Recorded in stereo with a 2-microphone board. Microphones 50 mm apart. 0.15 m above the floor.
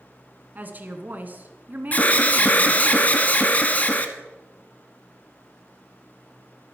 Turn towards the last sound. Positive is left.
turn(degrees=30)  # may be behind; listen again after turning